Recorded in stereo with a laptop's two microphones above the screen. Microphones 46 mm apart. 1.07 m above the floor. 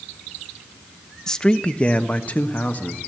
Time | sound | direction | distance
1.3 | a man speaking | 15° left (ahead or behind) | 0.9 m